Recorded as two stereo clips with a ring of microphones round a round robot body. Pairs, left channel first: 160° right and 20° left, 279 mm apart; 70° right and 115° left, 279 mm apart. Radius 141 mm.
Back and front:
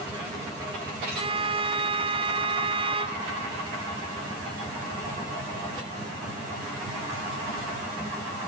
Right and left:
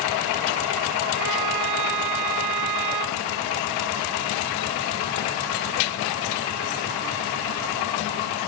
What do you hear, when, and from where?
1.1 s a violin: 95° left